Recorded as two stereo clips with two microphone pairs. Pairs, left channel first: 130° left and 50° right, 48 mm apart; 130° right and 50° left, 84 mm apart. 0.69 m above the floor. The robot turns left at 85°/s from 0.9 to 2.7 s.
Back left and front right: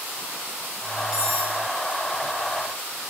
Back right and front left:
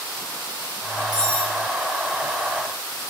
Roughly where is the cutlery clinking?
Ahead.